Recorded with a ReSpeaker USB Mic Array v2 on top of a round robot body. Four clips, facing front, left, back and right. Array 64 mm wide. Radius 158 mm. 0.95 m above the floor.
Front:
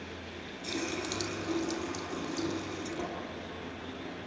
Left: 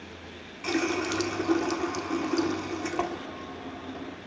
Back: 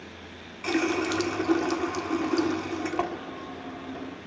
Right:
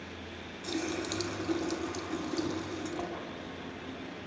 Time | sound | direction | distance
0.6 | a running tap | 145° left | 2.0 m